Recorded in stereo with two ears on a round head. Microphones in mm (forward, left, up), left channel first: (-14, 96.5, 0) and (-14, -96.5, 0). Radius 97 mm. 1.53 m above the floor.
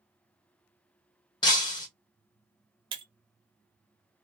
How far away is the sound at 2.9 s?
About 0.7 m.